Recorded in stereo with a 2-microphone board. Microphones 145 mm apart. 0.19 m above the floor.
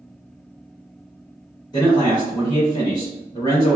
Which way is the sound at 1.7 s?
25° left (ahead or behind).